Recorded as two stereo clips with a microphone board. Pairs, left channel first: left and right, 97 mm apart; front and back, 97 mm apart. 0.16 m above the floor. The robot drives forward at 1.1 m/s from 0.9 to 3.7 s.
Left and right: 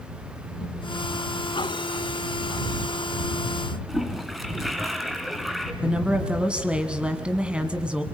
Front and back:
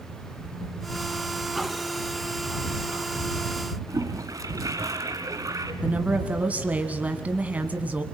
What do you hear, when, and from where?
3.9 s a toilet flushing: straight behind, 1.9 m
5.8 s a woman speaking: 145° right, 1.4 m